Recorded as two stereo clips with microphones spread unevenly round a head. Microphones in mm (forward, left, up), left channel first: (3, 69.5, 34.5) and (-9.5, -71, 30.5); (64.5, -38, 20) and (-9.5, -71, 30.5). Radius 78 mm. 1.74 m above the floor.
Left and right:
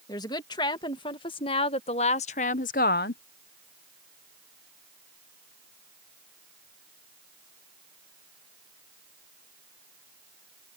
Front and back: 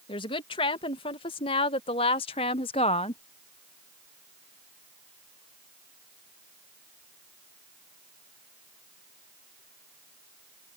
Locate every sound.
0.1 s a woman speaking: 20° left; by 3.2 s 75° left